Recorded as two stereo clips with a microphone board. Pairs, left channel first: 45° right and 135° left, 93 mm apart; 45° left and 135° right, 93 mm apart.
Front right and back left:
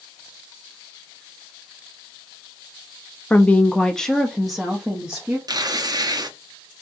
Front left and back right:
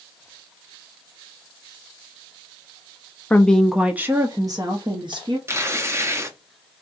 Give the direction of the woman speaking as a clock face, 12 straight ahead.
12 o'clock.